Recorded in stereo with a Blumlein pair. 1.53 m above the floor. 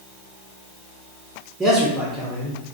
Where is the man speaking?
5° right, 0.8 m.